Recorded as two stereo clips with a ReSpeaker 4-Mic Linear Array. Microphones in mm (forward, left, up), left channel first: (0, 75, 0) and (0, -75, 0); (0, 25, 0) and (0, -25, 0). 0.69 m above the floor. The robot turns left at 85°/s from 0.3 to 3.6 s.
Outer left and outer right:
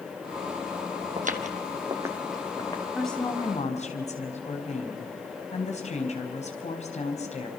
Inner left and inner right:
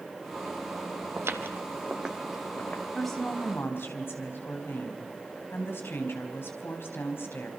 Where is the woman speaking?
175° right, 4.5 m; by 7.5 s 130° left, 4.5 m.